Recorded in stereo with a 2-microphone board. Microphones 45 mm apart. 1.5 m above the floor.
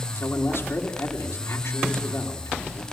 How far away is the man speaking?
About 3.5 m.